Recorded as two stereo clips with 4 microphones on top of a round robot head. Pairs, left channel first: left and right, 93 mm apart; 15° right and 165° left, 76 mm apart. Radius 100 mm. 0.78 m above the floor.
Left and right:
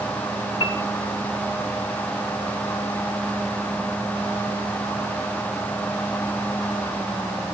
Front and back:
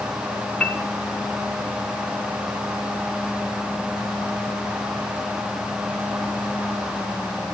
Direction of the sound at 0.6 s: 55° left.